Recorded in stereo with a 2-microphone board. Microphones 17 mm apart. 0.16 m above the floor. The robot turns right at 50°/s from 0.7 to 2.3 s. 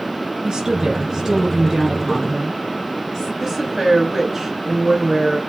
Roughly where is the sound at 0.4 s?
Ahead right.